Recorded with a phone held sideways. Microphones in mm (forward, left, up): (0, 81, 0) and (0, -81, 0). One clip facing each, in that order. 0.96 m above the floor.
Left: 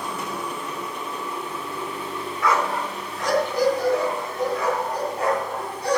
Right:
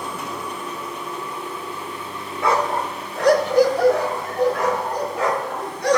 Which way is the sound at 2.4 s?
25° right (ahead or behind).